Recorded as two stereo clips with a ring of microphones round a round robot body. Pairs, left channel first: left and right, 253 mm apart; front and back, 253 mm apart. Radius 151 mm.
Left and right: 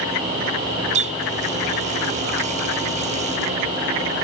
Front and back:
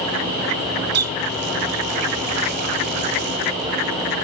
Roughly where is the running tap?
Behind right.